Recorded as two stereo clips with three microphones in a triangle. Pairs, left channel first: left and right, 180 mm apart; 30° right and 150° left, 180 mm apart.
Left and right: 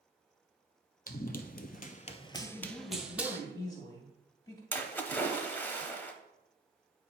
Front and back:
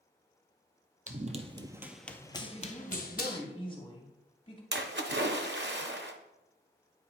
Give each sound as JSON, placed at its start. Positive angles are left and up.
{"t": 1.1, "sound": "running footsteps", "azimuth_deg": 115, "distance_m": 0.7}
{"t": 2.4, "sound": "a woman speaking", "azimuth_deg": 25, "distance_m": 2.0}
{"t": 4.7, "sound": "a splash", "azimuth_deg": 170, "distance_m": 0.7}